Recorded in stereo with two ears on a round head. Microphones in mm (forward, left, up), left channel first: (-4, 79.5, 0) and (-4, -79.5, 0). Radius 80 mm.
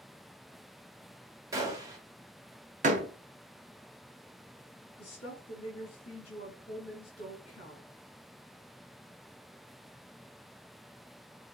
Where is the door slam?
45° right (ahead or behind), 1.4 m.